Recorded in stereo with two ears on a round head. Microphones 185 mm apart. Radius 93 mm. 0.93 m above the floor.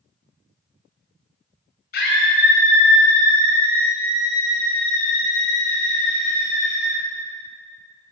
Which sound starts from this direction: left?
A scream, at 1.9 s.